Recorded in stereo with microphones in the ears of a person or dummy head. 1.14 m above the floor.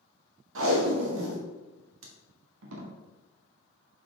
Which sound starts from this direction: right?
Tape being pulled, at 0.6 s.